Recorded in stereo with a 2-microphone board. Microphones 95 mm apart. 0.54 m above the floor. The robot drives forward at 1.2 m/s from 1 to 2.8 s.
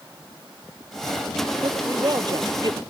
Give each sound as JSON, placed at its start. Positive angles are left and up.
{"t": 1.6, "sound": "a woman speaking", "side_deg": -45}